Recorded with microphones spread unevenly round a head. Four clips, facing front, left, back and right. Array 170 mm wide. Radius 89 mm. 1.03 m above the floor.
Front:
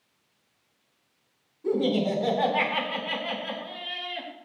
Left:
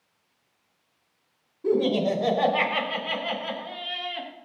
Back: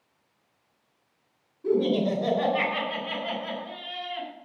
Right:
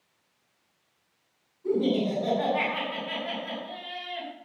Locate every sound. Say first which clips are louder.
1.6 s laughter: left 3 dB, back 1 dB; 85° left, 5 m